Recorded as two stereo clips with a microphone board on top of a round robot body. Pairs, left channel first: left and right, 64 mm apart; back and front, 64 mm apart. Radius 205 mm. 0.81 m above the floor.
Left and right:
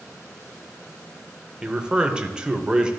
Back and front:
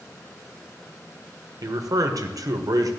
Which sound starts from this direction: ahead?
A man speaking, at 1.6 s.